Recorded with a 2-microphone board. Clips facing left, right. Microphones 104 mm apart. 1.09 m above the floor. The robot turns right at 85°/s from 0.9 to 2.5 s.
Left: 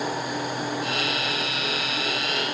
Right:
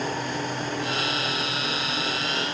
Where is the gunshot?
No gunshot in this recording.